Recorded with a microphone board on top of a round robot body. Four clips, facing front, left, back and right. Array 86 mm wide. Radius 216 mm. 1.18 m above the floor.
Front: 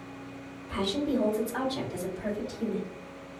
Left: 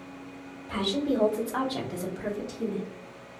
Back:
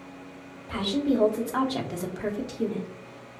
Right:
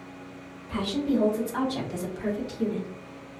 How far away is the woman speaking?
About 1.4 m.